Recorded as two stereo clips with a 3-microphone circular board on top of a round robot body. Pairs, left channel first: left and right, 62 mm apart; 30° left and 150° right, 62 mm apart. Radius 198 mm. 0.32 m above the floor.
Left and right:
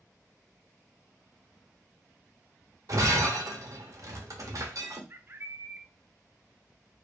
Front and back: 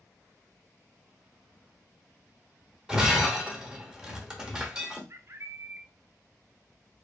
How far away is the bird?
About 0.5 m.